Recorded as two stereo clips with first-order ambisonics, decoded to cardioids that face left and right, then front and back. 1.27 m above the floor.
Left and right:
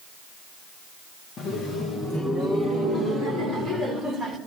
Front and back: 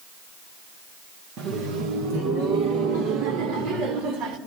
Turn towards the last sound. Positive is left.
turn(degrees=175)